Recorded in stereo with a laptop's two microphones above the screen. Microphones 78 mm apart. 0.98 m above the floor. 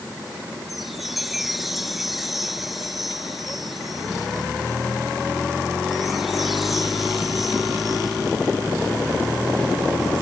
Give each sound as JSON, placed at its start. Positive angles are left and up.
{"t": 0.7, "sound": "a chime", "side_deg": -5}